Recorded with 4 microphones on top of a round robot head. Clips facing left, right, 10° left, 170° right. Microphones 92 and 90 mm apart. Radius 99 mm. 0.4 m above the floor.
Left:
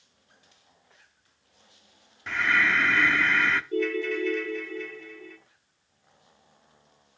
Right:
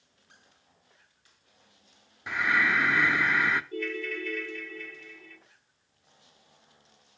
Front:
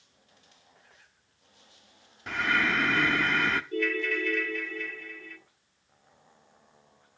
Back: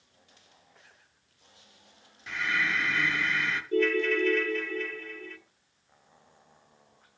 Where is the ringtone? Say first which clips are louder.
Left 7 dB, back 4 dB; 135° left, 1.0 m.